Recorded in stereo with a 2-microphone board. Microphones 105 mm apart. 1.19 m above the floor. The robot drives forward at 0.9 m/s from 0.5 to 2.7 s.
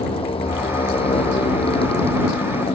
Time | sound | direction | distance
0.0 | a motorcycle | 65° left (ahead or behind) | ?